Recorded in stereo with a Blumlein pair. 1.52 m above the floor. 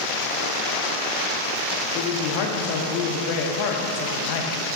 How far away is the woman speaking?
About 1.5 m.